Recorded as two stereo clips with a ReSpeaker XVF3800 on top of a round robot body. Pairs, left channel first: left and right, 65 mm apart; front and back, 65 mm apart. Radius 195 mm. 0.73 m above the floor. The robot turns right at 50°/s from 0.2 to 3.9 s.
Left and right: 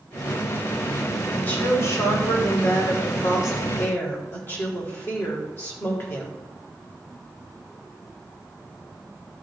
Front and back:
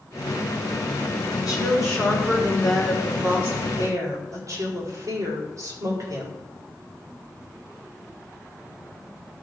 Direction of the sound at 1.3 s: 15° left.